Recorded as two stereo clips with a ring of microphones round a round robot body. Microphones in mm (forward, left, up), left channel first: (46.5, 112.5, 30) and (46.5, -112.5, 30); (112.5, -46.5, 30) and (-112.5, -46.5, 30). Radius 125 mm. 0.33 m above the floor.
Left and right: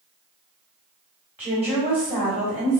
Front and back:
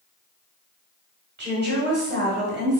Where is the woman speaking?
170° right, 1.6 m.